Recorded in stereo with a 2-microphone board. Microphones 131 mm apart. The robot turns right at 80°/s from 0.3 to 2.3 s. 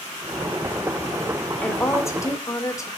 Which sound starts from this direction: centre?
A woman speaking, at 1.6 s.